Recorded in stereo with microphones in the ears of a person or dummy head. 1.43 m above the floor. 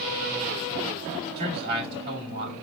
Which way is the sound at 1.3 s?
55° right (ahead or behind).